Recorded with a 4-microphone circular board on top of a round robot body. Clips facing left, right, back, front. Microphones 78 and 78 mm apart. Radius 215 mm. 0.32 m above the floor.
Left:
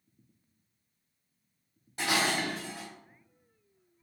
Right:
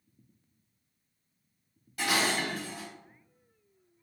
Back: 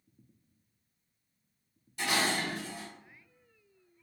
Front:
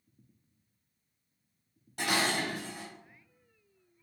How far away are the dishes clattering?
About 1.7 m.